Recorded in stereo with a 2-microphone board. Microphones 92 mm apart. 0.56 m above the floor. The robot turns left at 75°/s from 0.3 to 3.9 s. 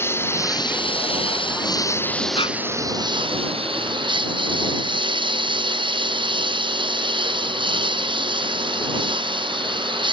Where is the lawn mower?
150° left; by 10.1 s 120° right.